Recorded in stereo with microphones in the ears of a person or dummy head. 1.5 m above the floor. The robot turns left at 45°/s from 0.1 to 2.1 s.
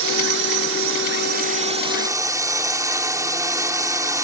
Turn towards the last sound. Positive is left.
turn(degrees=-165)